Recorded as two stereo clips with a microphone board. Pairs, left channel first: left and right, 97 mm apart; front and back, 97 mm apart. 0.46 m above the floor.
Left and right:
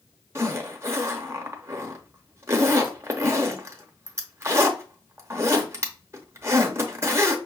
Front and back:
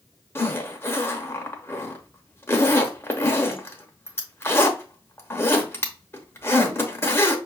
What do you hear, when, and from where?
0.3 s a zipper: 50° right, 0.8 m